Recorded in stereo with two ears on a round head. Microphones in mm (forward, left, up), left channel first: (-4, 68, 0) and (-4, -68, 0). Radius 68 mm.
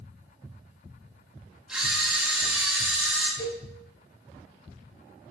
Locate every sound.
1.7 s a camera shutter: 5° right (ahead or behind), 1.2 m
3.4 s a cowbell: 75° left (ahead or behind), 1.2 m